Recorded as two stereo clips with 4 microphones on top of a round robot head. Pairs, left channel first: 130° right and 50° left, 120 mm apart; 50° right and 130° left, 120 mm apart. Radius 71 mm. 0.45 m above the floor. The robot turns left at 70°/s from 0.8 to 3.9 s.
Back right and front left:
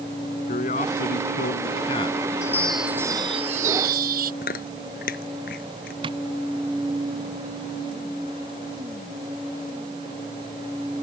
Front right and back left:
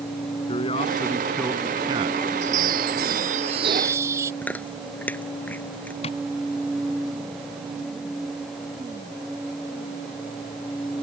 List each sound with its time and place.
0.5 s a man speaking: 95° right; by 3.2 s 90° left
2.4 s a chime: 165° left; by 4.3 s 60° left
4.4 s chewing: 130° right
6.0 s tapping: 5° right